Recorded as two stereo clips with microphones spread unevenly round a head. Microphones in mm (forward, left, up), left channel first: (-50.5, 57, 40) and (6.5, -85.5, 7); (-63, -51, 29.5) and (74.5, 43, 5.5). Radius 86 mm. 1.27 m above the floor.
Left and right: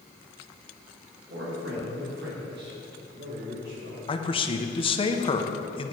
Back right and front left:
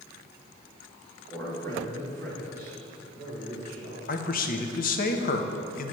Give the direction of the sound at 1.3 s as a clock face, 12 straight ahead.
3 o'clock.